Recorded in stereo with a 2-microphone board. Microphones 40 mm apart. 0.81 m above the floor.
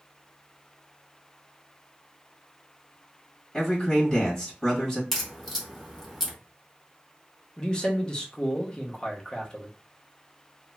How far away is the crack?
About 1.0 m.